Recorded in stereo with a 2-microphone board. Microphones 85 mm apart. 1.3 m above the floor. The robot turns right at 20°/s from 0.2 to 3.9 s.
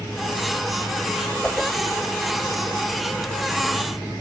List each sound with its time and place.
1.4 s a whoosh: centre (ahead or behind), 3 m; by 1.7 s 5° left (ahead or behind), 3 m